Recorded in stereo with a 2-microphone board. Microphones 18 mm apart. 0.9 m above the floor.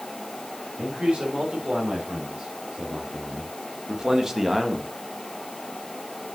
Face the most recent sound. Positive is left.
turn(degrees=-5)  # may be behind; listen again after turning